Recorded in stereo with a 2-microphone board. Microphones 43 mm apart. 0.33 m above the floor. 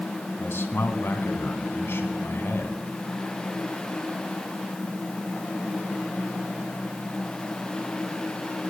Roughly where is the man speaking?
Left.